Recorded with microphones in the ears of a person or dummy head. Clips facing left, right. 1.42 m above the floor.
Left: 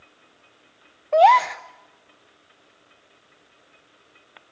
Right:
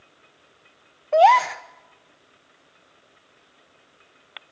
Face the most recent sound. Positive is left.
turn(degrees=-5)  # may be behind; listen again after turning